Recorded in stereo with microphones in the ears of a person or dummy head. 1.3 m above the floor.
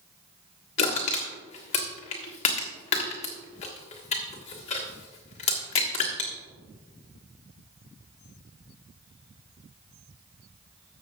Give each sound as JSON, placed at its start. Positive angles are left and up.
{"t": 0.8, "sound": "crushing", "side_deg": 35, "distance_m": 1.5}